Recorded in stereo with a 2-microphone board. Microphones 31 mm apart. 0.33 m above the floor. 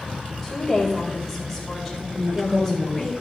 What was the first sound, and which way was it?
A woman speaking, 5° left (ahead or behind).